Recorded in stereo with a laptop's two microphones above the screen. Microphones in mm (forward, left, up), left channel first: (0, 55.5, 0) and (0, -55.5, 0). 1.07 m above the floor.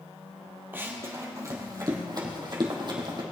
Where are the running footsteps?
20° right (ahead or behind), 2.0 m; by 3.2 s 45° right (ahead or behind), 3 m.